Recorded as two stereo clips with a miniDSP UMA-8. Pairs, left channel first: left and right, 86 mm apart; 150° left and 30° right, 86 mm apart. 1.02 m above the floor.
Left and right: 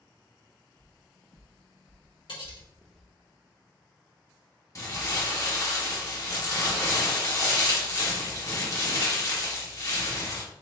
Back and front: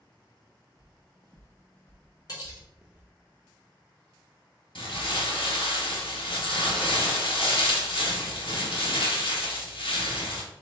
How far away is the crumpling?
About 1.2 m.